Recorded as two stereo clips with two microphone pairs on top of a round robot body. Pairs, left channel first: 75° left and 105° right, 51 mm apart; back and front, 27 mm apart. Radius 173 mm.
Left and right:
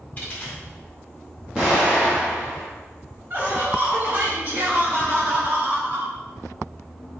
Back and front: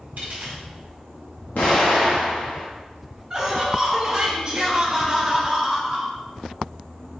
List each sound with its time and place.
0.2 s a dropped coin: 10° left, 1.0 m
1.6 s an explosion: straight behind, 0.6 m
3.3 s laughter: 60° right, 1.7 m